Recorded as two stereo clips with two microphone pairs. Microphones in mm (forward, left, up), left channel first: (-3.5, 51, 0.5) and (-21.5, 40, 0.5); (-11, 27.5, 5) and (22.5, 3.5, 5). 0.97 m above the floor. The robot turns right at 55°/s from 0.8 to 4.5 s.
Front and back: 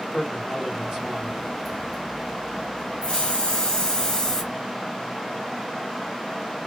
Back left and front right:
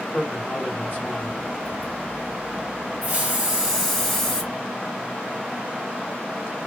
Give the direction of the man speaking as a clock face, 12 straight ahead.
6 o'clock.